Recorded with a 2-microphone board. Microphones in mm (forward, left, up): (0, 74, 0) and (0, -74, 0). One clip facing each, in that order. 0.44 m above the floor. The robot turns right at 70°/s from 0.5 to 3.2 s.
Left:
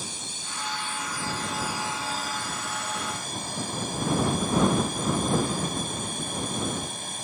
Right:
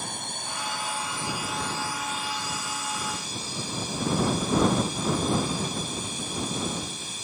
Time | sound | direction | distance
0.0 | a drone | 70° right | ?